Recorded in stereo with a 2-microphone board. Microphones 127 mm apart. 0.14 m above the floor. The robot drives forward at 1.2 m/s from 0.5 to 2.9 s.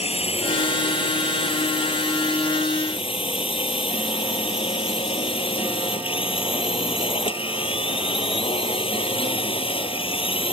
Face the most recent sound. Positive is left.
turn(degrees=45)  # may be behind; listen again after turning